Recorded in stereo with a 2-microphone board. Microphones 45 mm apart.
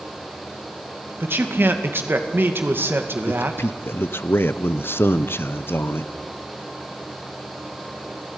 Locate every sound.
1.2 s a man speaking: 55° right (ahead or behind), 2 m
3.3 s a man speaking: 60° left (ahead or behind), 0.9 m